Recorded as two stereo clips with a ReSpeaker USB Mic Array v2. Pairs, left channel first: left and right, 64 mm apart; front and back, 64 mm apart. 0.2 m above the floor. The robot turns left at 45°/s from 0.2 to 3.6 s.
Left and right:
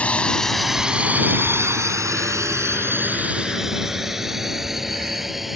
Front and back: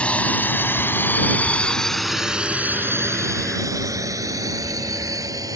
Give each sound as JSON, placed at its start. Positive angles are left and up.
{"t": 0.0, "sound": "a drone", "azimuth_deg": 45}